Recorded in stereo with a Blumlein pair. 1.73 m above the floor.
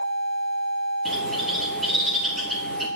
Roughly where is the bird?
Ahead.